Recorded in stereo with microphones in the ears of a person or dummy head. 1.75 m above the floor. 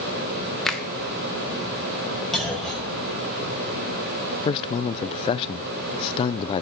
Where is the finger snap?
Centre (ahead or behind), 1.3 m.